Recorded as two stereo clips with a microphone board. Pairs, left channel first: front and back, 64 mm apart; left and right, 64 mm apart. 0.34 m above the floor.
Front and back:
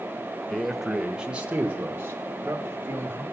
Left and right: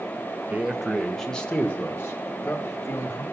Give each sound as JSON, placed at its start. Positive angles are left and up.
{"t": 0.5, "sound": "a man speaking", "azimuth_deg": -70, "distance_m": 0.8}